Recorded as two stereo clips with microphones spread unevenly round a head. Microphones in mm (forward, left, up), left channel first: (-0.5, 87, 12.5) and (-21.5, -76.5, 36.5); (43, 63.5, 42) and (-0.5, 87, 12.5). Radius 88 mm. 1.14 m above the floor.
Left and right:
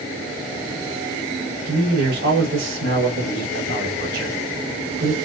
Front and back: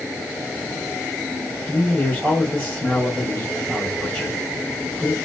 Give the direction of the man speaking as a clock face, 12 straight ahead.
4 o'clock.